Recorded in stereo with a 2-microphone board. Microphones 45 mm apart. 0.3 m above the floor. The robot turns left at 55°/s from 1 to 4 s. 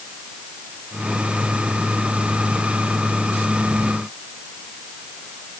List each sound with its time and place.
Only background noise.